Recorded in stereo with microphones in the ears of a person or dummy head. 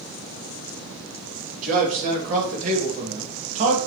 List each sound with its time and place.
1.6 s a man speaking: 45° right (ahead or behind), 3 m; by 3.8 s 40° right (ahead or behind), 1.7 m